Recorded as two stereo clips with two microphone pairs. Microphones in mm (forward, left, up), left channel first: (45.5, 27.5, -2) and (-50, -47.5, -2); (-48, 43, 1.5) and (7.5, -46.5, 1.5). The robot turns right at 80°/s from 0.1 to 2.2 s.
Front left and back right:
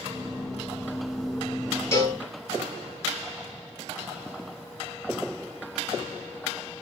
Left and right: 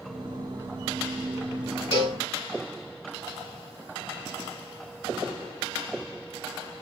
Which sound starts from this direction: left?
A cowbell, at 1.9 s.